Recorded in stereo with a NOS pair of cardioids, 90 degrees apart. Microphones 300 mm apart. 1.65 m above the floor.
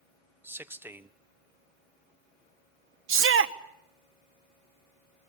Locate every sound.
0.4 s a man speaking: 5° right, 1.2 m
3.1 s a shout: 45° right, 1.4 m